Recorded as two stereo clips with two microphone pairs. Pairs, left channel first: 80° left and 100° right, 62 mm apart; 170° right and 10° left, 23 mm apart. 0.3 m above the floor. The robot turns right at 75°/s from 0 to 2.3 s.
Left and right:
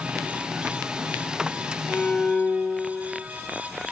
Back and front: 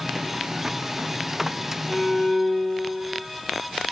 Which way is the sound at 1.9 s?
135° left.